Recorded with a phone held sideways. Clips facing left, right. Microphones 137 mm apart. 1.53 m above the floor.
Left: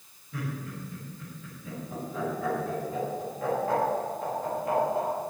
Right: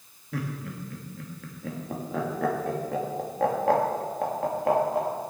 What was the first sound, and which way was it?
Laughter, 75° right (ahead or behind).